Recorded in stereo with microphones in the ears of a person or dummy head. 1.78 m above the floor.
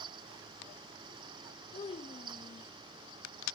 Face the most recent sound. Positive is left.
turn(degrees=35)  # may be behind; listen again after turning